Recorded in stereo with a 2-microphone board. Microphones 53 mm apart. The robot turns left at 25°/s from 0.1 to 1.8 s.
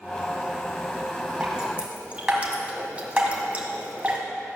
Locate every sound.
1.4 s dripping: 15° right (ahead or behind), 1.8 m; by 4.2 s 25° right (ahead or behind), 1.8 m